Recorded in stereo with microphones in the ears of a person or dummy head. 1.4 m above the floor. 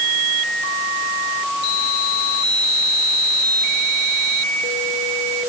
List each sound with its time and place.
Only background noise.